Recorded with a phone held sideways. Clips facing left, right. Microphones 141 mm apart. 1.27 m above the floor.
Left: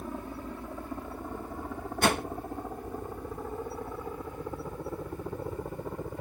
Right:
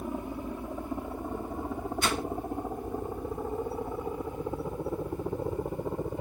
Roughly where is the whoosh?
Left.